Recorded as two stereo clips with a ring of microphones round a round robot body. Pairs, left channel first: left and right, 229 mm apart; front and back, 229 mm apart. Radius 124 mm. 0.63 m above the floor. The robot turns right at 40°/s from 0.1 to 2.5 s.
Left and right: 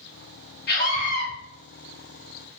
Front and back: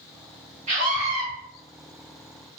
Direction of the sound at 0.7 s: 125° left.